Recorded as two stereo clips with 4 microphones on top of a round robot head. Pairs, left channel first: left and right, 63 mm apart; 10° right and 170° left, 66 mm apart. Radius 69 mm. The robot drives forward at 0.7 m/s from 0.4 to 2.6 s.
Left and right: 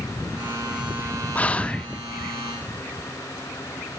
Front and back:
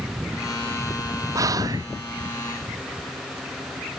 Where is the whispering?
155° left, 0.9 m; by 1.9 s 165° left, 1.2 m.